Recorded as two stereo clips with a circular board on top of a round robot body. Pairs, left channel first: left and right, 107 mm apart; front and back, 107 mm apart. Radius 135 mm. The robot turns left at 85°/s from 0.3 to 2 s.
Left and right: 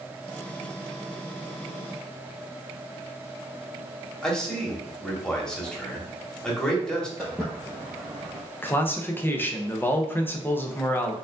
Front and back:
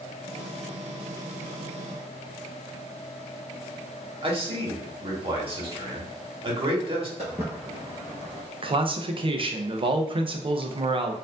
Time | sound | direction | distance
4.2 | a man speaking | 170° left | 1.4 m
7.2 | footsteps | 175° left | 0.9 m
8.6 | a man speaking | 160° left | 0.7 m